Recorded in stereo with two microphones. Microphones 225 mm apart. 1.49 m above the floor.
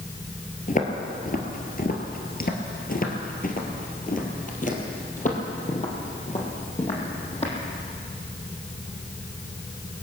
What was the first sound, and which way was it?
Footsteps, 35° left (ahead or behind).